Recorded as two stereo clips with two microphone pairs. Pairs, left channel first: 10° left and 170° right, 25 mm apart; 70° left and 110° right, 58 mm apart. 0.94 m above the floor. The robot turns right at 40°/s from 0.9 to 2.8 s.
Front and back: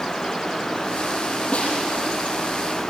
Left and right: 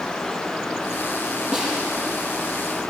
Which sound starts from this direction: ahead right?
A snare drum, at 1.5 s.